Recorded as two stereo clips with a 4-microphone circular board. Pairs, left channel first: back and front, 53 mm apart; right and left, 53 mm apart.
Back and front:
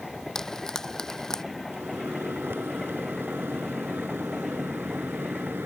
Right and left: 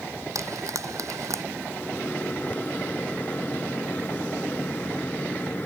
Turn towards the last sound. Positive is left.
turn(degrees=-35)